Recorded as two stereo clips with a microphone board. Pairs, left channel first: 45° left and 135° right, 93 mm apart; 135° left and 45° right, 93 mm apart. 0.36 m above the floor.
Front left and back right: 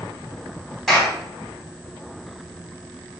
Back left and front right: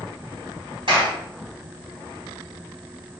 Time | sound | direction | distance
0.9 | a clap | 40° right | 2.5 m